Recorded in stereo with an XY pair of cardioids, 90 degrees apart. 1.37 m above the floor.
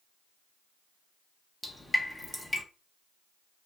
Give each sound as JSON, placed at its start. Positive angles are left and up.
{"t": 1.6, "sound": "dripping", "azimuth_deg": 5, "distance_m": 0.8}